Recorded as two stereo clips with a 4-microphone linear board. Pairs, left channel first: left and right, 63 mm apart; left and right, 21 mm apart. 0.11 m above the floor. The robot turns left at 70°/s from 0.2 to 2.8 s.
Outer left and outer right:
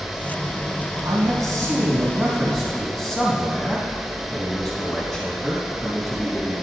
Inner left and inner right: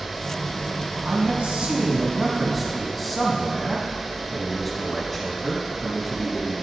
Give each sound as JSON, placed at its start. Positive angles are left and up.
{"t": 1.0, "sound": "a man speaking", "azimuth_deg": -75, "distance_m": 4.0}